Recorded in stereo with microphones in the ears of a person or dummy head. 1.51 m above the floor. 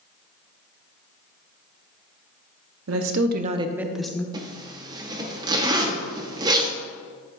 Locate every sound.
2.9 s a woman speaking: 80° right, 0.8 m; by 4.2 s 10° left (ahead or behind), 1.1 m
4.3 s a zipper: 20° right (ahead or behind), 0.8 m